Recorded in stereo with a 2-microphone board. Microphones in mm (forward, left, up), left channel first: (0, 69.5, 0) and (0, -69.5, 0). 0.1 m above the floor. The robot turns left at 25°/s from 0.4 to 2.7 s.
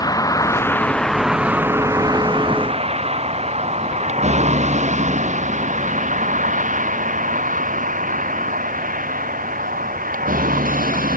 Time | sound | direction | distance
0.0 | a vehicle | 25° left (ahead or behind) | ?